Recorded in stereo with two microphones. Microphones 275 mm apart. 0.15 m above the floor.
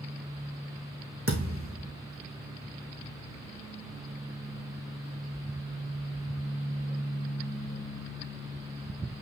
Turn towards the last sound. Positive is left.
turn(degrees=-50)  # may be behind; listen again after turning